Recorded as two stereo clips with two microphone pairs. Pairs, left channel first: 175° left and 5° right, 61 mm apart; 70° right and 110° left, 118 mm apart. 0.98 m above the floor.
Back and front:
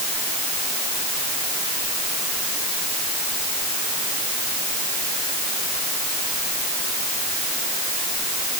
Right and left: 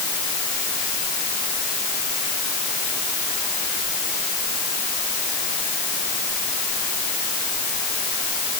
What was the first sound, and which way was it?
Only background noise.